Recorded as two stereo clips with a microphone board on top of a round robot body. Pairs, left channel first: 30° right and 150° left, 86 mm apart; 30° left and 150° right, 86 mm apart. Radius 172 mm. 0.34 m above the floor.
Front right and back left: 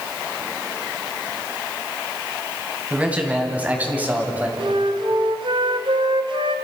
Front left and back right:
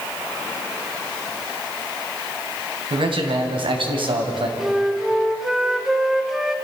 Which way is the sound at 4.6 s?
125° left.